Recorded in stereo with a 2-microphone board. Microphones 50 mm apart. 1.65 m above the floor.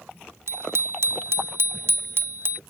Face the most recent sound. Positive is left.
turn(degrees=-45)  # may be behind; listen again after turning